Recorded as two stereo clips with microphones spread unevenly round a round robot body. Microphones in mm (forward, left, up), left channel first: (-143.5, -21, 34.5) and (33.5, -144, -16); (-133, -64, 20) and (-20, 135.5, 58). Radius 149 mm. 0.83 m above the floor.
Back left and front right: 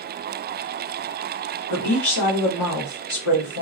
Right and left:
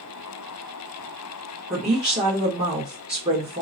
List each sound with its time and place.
1.7 s a woman speaking: 130° left, 1.6 m